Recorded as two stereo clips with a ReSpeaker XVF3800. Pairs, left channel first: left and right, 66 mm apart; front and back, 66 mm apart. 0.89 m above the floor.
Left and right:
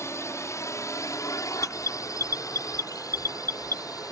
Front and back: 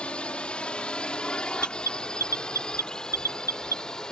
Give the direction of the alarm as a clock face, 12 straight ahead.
11 o'clock.